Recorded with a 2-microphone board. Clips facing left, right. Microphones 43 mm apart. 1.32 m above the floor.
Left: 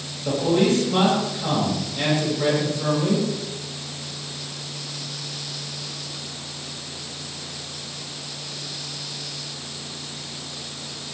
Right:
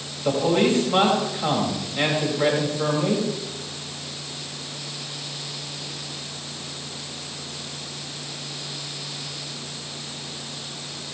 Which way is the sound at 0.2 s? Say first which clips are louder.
Even; 30° right (ahead or behind).